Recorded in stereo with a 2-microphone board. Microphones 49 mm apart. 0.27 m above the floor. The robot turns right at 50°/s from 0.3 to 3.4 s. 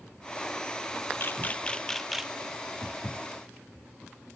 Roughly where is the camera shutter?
Left.